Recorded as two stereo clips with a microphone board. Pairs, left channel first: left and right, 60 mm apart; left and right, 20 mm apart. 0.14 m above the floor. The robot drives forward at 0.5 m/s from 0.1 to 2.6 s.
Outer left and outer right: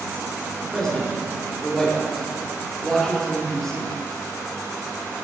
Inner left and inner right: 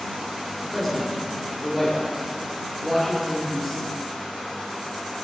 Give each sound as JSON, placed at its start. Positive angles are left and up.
{"t": 0.6, "sound": "a man speaking", "side_deg": 5, "distance_m": 1.5}